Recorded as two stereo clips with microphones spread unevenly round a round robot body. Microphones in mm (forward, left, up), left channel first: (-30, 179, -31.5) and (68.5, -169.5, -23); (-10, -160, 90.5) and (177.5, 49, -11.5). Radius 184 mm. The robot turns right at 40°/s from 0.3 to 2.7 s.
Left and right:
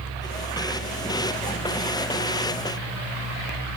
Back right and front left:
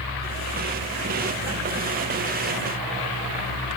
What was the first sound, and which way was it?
Only background noise.